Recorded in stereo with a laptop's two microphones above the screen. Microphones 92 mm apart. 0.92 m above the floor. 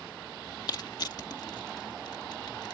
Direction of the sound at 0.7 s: 50° left (ahead or behind).